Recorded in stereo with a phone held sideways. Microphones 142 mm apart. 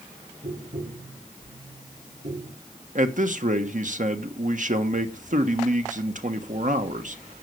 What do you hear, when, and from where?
0.4 s tapping: 65° right (ahead or behind), 4 m
3.0 s a man speaking: 65° right (ahead or behind), 1.3 m